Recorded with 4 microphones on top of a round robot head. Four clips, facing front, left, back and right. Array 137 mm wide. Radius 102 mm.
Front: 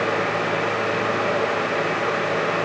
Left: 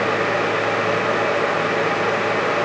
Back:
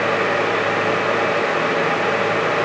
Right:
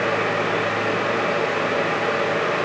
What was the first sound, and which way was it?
Only background noise.